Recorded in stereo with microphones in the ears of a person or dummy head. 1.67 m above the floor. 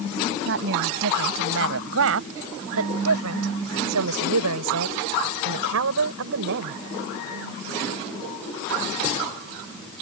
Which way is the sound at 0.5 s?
60° right (ahead or behind).